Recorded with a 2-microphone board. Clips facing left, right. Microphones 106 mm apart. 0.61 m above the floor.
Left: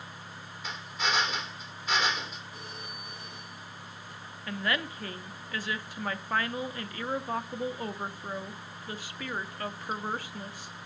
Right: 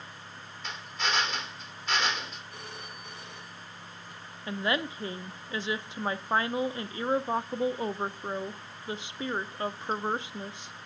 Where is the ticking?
No ticking in this recording.